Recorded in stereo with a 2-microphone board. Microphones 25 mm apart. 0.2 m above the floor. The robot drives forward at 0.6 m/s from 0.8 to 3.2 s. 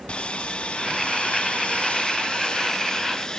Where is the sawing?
45° left (ahead or behind), 0.8 m; by 3.4 s 25° left (ahead or behind), 1.3 m.